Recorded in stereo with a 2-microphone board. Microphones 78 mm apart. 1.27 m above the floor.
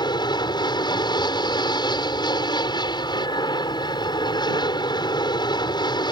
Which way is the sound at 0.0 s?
70° left (ahead or behind).